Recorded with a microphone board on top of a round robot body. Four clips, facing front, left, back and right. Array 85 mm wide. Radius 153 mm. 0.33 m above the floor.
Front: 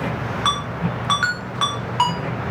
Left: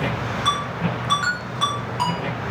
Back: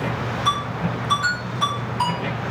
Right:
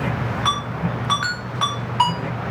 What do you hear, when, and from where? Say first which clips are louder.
0.5 s a ringtone: left 1 dB, even; 20° right, 2.5 m